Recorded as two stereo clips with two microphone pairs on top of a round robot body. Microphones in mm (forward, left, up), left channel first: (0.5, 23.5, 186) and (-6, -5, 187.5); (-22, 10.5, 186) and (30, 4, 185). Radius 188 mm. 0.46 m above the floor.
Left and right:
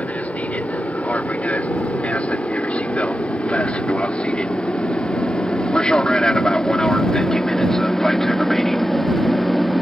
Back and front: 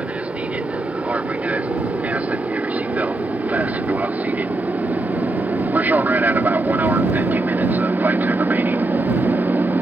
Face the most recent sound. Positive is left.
turn(degrees=-10)